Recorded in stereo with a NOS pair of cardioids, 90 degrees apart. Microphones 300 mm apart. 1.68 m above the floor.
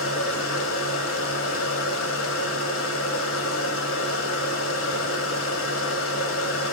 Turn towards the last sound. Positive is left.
turn(degrees=50)